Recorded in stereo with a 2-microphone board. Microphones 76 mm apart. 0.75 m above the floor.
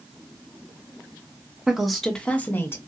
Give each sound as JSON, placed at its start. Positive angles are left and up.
{"t": 1.7, "sound": "a woman speaking", "side_deg": -10, "distance_m": 0.9}